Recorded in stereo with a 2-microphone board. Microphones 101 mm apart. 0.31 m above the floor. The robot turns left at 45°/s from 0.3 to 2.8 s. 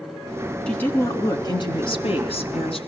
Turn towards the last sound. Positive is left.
turn(degrees=75)